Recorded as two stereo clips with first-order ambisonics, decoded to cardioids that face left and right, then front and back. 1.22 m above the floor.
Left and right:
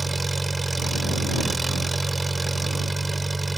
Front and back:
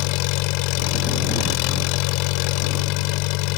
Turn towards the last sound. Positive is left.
turn(degrees=-10)